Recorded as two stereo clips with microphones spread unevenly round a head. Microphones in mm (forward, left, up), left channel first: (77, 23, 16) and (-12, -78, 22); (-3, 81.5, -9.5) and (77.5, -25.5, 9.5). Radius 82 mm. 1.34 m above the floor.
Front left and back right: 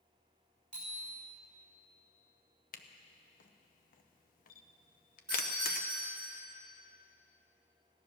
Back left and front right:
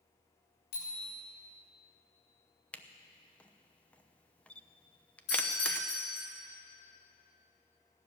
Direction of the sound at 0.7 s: 135° left.